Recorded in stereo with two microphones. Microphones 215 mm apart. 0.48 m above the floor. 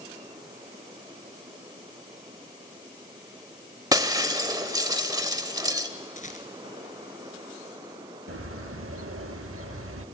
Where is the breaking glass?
15° right (ahead or behind), 0.8 m.